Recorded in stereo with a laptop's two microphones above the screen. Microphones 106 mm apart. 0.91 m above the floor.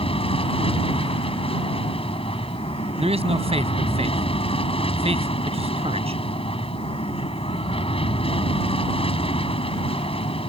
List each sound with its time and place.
0.0 s an aircraft: 60° left (ahead or behind)
3.0 s a man speaking: 75° right (ahead or behind)